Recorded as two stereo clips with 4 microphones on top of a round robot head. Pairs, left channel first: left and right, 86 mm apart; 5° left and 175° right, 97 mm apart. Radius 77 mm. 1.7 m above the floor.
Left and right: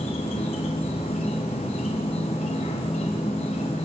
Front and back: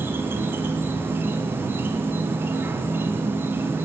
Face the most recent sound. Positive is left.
turn(degrees=120)